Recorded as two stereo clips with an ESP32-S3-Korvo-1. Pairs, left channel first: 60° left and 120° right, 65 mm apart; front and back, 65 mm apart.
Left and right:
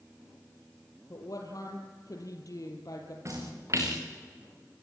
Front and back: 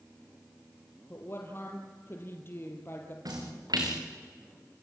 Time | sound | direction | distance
1.1 | a woman speaking | 50° left | 3 m
3.2 | a splash | 165° right | 4.5 m